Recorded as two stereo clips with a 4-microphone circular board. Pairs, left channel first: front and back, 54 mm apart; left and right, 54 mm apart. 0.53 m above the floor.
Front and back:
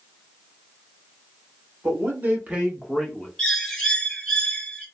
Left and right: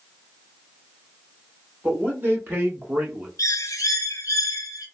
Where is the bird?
80° left, 0.7 m.